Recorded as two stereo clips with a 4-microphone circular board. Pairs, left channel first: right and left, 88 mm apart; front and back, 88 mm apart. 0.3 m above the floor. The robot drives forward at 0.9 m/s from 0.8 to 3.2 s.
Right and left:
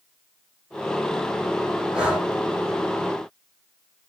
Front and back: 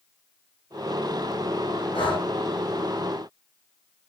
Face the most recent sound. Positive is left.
turn(degrees=10)